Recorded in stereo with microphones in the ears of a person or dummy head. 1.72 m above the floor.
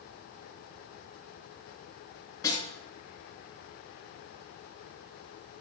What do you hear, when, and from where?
2.4 s a snare drum: 20° left (ahead or behind), 7.5 m